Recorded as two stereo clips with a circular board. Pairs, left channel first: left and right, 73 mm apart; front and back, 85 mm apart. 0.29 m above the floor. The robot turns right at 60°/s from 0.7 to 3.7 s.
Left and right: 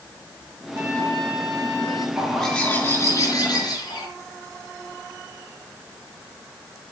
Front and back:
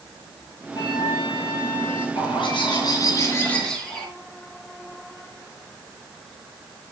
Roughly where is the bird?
Ahead.